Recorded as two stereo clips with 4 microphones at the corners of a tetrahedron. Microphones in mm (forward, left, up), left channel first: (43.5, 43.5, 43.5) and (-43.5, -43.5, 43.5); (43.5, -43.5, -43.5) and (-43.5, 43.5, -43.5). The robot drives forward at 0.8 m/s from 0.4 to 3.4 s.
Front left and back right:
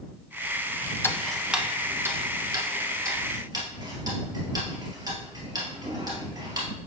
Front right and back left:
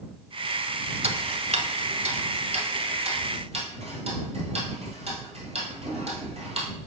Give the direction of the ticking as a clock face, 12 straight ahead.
8 o'clock.